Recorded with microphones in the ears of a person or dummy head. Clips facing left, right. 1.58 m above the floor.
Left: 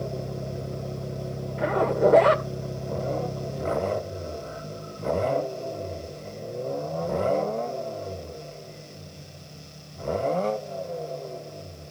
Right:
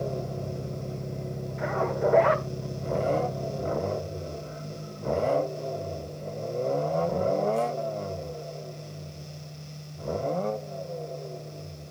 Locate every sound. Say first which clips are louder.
1.6 s a zipper: left 5 dB; 45° left (ahead or behind), 1.7 m